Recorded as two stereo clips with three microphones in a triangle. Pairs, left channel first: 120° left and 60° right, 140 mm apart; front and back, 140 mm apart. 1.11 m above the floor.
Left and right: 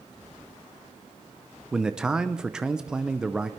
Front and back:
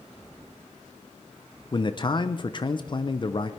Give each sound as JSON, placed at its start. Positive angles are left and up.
{"t": 1.7, "sound": "a man speaking", "azimuth_deg": 20, "distance_m": 0.6}